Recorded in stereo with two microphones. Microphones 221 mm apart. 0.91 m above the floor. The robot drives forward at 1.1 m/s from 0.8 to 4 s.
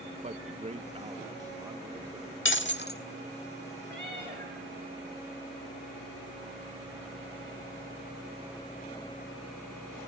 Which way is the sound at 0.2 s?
30° right (ahead or behind).